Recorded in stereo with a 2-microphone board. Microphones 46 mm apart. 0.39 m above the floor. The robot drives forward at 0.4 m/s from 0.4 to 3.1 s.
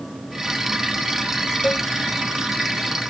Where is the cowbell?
30° left (ahead or behind).